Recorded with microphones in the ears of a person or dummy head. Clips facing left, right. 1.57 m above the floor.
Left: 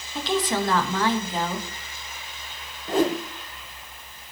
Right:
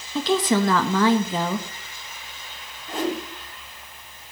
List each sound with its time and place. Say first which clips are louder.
0.1 s a woman speaking: right 5 dB; 70° right (ahead or behind), 1.7 m
2.9 s a whoosh: left 4 dB; 30° left (ahead or behind), 1.5 m